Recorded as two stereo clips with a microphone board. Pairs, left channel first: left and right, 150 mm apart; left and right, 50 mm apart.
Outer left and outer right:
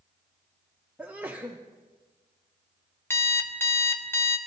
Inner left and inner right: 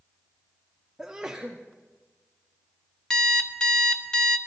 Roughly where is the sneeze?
Centre.